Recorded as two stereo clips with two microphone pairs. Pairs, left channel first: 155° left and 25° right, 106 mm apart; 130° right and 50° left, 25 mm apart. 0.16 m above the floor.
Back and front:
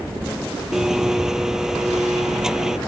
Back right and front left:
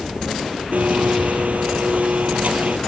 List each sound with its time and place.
0.7 s a blender: 55° left